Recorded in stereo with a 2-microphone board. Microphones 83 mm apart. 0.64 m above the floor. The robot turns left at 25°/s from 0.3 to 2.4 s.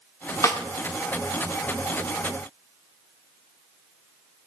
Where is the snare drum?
40° left (ahead or behind), 1.5 m; by 0.6 s 35° left (ahead or behind), 1.5 m.